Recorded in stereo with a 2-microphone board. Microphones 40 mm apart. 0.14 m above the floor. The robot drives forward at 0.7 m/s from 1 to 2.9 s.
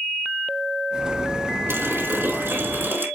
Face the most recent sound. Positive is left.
turn(degrees=-55)  # may be behind; listen again after turning